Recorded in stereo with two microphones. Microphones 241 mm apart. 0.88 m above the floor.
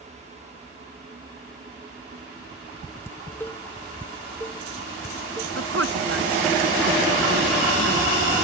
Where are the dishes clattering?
10° left (ahead or behind).